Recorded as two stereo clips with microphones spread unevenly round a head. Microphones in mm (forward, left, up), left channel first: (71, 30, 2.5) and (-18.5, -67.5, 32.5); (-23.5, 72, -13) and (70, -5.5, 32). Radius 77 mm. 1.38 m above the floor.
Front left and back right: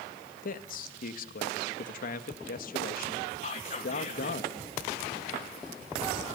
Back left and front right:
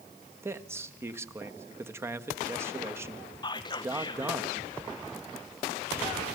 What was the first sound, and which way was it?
A man speaking, 30° left.